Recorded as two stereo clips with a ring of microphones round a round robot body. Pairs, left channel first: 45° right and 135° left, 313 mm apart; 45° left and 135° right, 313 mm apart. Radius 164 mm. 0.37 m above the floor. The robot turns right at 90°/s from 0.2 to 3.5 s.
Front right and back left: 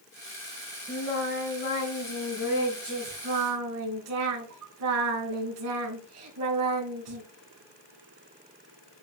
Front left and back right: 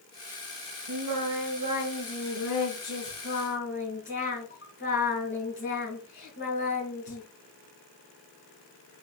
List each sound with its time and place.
0.9 s singing: 135° right, 4.5 m; by 7.2 s 100° left, 4.5 m